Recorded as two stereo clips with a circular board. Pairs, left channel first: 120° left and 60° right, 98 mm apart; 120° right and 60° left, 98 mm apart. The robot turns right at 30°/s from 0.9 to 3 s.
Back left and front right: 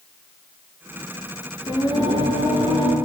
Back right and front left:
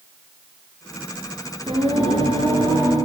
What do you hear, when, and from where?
1.7 s singing: 80° left, 1.2 m; by 3.0 s 115° left, 1.2 m